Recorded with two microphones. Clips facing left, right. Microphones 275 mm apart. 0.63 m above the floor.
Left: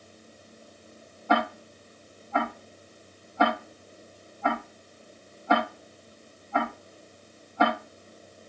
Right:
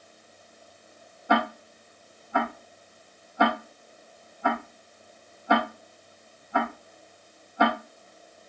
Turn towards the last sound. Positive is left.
turn(degrees=-10)  # may be behind; listen again after turning